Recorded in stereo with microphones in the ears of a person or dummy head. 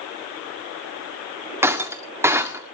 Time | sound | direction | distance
1.6 | breaking glass | 15° right (ahead or behind) | 1.9 m